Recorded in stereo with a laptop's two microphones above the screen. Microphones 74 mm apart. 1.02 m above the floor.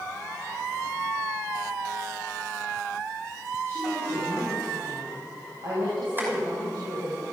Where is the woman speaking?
45° right (ahead or behind), 6.5 m; by 7.2 s 85° right, 5 m.